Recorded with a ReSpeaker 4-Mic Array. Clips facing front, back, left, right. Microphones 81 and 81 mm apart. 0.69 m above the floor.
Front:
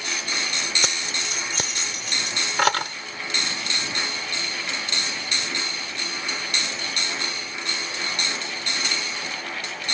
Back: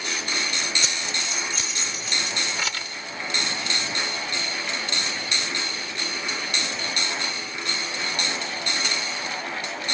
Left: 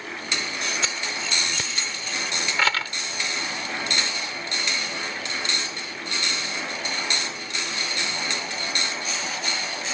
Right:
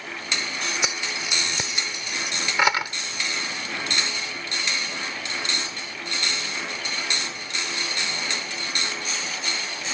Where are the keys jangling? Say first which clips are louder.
Front 1 dB, even; 20° right.